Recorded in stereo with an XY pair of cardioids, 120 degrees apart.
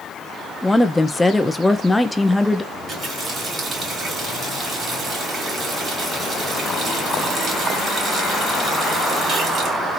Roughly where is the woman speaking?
Ahead.